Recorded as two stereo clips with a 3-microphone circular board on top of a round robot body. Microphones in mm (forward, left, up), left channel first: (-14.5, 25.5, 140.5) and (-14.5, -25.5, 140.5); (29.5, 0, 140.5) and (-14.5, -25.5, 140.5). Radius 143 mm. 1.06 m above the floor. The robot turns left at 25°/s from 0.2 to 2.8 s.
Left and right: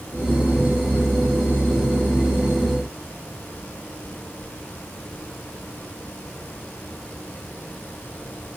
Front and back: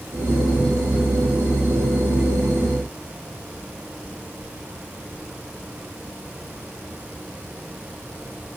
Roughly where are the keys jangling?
No keys jangling in this recording.